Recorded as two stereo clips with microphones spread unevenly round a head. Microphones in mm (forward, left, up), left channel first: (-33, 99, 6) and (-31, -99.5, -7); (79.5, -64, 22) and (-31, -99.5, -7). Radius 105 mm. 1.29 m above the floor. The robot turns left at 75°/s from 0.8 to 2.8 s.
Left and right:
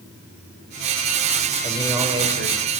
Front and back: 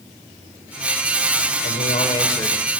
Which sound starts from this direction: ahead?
A man speaking, at 1.6 s.